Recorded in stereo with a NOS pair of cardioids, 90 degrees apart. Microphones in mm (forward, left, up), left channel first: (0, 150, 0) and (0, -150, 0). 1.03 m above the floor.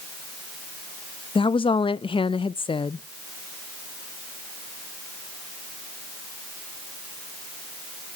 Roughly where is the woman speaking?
Ahead.